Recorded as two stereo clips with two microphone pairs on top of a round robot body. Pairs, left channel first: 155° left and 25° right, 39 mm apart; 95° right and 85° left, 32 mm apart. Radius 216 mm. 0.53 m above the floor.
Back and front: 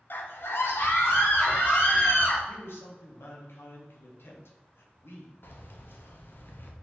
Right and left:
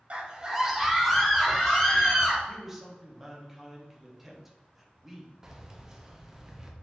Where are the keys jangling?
155° left, 0.8 m.